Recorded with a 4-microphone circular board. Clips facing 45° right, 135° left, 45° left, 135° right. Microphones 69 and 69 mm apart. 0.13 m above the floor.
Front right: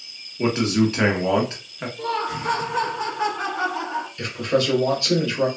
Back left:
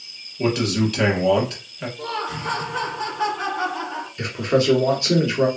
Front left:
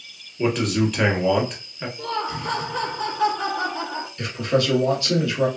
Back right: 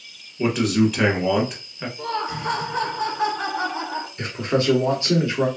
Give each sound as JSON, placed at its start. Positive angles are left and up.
{"t": 0.4, "sound": "a man speaking", "azimuth_deg": -55, "distance_m": 1.1}
{"t": 2.0, "sound": "laughter", "azimuth_deg": -110, "distance_m": 1.2}
{"t": 4.2, "sound": "a man speaking", "azimuth_deg": -175, "distance_m": 1.2}